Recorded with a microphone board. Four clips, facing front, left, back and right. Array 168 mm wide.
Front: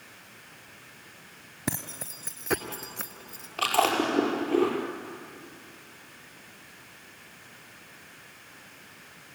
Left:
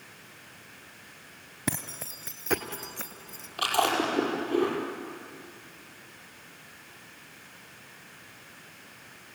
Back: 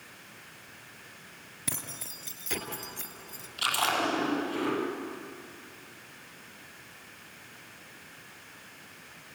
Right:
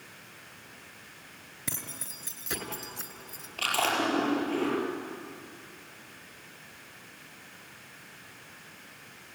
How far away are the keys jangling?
About 2.5 m.